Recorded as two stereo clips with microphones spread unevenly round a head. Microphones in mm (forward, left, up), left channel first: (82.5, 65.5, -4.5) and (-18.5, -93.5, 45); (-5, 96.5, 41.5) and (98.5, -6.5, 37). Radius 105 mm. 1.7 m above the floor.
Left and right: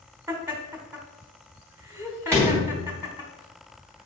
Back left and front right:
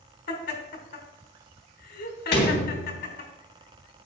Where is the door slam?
165° left, 2.5 m.